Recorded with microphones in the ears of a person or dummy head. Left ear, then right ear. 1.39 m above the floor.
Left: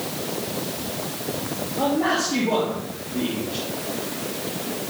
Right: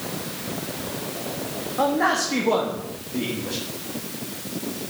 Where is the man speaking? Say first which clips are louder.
Right 1 dB; 55° right (ahead or behind), 2.0 m.